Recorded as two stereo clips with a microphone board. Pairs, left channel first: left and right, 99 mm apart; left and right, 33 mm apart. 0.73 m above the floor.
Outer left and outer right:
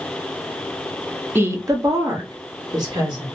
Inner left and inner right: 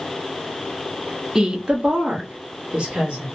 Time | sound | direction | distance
1.4 | a woman speaking | 20° right (ahead or behind) | 0.6 m